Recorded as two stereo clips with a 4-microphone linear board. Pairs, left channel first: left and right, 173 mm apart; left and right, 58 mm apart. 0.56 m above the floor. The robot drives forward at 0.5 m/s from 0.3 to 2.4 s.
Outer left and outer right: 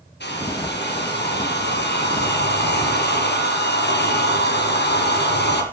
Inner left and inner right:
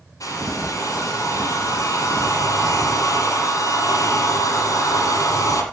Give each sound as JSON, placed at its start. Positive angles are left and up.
{"t": 0.2, "sound": "a hair dryer", "side_deg": 90, "distance_m": 6.5}